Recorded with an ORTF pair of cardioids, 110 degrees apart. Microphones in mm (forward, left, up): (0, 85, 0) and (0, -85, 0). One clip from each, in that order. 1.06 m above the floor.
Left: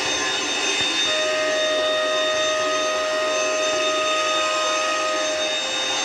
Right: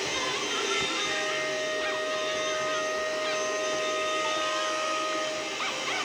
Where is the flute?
65° left, 2.5 m.